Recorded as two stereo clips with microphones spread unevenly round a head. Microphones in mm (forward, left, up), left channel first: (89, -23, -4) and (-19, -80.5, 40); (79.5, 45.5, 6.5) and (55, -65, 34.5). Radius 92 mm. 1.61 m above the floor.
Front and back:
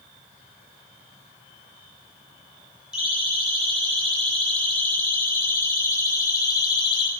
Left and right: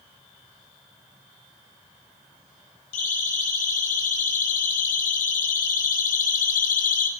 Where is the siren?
125° left, 9 m; by 7.1 s 95° left, 6 m.